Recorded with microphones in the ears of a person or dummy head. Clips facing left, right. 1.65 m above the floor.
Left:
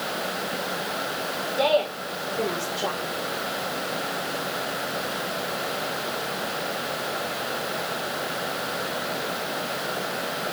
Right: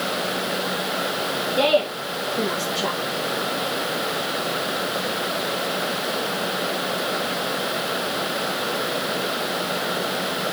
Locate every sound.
1.6 s a woman speaking: 85° right, 3 m